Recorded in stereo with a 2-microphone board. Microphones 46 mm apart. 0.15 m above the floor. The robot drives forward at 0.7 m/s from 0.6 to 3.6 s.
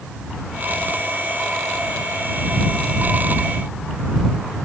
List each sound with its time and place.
Only background noise.